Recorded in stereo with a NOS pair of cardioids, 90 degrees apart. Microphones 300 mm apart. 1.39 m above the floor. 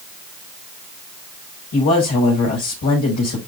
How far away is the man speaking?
About 5 m.